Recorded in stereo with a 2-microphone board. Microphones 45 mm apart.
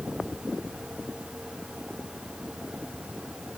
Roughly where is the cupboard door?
I don't hear a cupboard door.